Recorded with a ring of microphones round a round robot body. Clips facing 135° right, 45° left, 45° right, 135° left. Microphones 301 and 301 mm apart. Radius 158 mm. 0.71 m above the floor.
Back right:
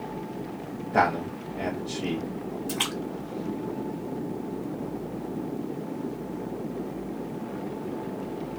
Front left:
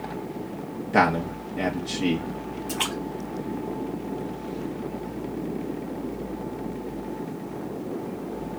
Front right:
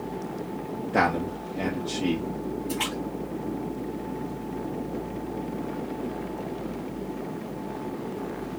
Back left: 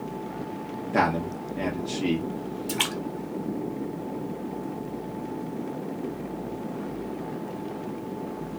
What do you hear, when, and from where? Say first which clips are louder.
0.9 s a man speaking: front left 4 dB, even; 55° left, 0.8 m
2.7 s a splash: front left 1 dB, front right 1 dB; 145° left, 1.1 m